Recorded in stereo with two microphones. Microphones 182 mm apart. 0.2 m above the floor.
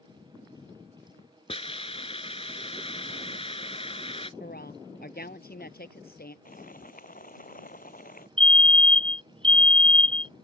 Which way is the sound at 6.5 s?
55° left (ahead or behind).